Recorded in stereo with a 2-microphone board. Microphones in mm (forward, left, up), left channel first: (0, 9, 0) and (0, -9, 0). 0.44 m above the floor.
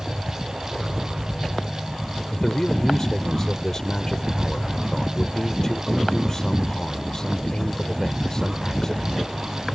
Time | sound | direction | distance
2.3 | a man speaking | 30° left (ahead or behind) | ?